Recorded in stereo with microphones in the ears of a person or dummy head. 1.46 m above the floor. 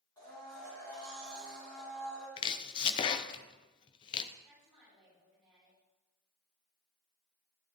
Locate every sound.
0.2 s a blender: 20° left (ahead or behind), 4 m
2.4 s chopping: 30° left (ahead or behind), 0.6 m
4.5 s a woman speaking: centre (ahead or behind), 6.5 m